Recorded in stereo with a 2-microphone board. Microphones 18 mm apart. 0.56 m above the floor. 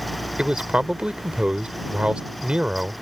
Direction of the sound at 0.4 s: 65° right (ahead or behind).